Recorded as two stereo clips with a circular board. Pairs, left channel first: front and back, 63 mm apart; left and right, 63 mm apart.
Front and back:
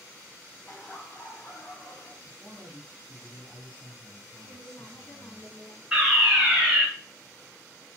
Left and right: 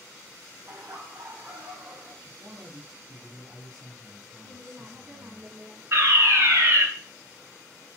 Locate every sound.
0.7 s laughter: 70° right, 1.7 m; by 2.1 s 40° right, 3.5 m
2.2 s a man speaking: 95° right, 2 m
4.4 s a woman speaking: 30° right, 3.5 m
5.9 s a fire alarm: 100° right, 2.5 m